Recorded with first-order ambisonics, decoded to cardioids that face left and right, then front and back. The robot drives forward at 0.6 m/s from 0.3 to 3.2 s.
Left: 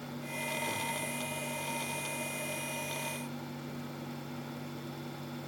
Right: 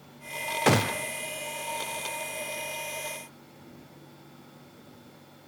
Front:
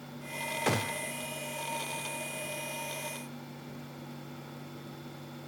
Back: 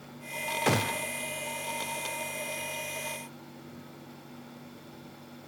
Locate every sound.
0.7 s a gunshot: 100° right; by 1.1 s 120° right